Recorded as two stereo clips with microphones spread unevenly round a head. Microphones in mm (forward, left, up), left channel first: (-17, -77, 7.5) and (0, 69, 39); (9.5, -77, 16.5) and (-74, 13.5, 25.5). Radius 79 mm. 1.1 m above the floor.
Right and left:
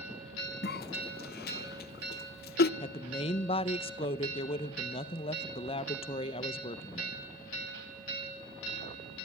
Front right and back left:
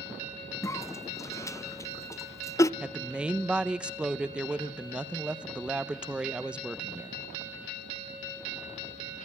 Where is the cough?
115° right, 0.6 m.